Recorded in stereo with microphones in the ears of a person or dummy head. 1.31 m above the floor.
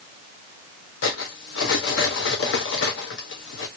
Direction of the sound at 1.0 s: 65° left (ahead or behind).